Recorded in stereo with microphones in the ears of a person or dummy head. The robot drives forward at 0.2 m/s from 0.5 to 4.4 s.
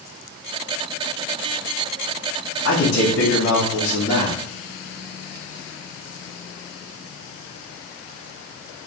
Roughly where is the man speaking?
Left.